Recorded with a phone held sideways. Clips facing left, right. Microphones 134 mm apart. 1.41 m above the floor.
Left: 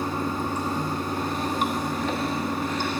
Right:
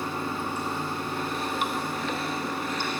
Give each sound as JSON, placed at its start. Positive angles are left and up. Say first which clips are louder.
{"t": 0.0, "sound": "running water", "louder": "left 4 dB", "side_deg": 40, "distance_m": 1.0}